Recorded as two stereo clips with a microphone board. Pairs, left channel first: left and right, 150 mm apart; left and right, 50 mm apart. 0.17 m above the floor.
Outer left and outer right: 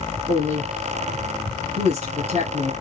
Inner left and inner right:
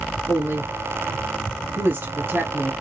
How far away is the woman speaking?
About 1.9 m.